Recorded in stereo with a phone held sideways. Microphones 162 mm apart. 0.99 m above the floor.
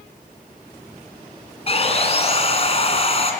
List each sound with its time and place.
1.7 s sawing: 40° left (ahead or behind), 3 m